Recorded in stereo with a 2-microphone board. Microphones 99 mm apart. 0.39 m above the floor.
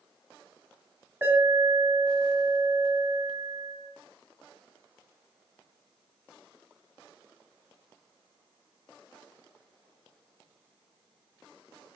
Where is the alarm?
25° right (ahead or behind), 3 m.